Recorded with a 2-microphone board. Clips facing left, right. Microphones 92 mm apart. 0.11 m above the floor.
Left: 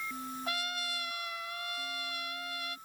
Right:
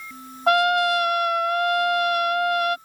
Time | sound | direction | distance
0.5 | a trumpet | 65° right (ahead or behind) | ?